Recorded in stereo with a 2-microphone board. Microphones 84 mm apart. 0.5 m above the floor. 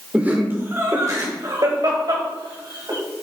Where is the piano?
No piano in this recording.